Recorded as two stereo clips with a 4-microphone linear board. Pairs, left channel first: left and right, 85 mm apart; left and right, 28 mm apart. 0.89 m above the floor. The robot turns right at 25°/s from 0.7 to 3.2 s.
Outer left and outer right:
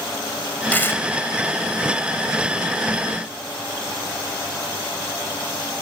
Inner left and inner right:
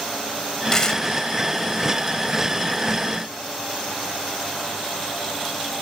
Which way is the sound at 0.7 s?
20° left (ahead or behind).